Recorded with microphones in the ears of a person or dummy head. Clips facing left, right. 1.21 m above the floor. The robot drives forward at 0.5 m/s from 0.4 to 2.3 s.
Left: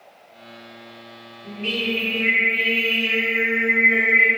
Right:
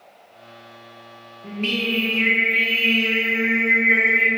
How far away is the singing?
About 0.7 m.